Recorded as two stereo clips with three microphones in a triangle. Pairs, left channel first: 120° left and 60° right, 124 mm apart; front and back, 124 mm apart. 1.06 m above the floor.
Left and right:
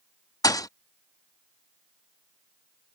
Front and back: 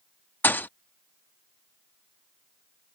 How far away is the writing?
No writing in this recording.